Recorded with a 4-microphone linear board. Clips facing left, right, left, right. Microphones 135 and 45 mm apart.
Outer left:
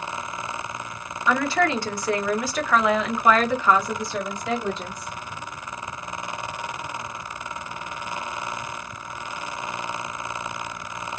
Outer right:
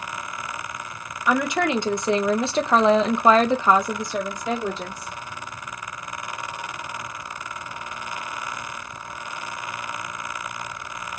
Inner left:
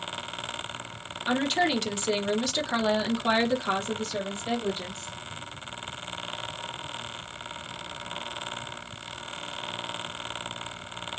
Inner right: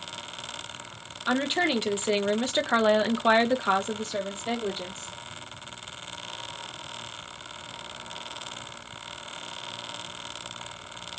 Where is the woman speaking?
15° right (ahead or behind), 1.1 m; by 5.1 s 10° right (ahead or behind), 1.3 m.